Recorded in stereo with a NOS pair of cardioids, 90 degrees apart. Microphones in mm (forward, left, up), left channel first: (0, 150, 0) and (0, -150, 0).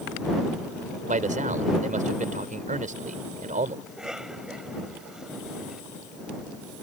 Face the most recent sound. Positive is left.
turn(degrees=0)